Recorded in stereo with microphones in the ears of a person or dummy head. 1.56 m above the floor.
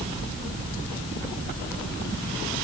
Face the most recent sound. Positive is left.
No sound to turn to.